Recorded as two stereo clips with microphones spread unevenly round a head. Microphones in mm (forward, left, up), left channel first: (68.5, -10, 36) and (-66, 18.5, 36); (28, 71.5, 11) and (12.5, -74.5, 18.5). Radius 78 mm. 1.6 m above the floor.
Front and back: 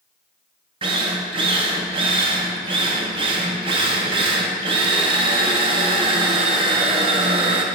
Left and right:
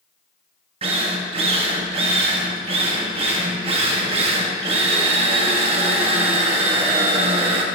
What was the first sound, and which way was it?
A drill, 140° right.